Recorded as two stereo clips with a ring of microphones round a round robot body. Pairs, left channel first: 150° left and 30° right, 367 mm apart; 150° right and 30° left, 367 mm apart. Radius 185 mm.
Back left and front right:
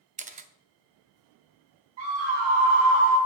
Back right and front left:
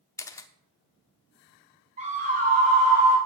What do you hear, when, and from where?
0.2 s a camera shutter: 75° right, 0.6 m
2.0 s a scream: 40° right, 3 m